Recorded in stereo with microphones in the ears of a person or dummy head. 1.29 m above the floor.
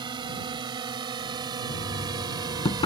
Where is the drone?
25° right (ahead or behind); by 2.9 s 20° right (ahead or behind).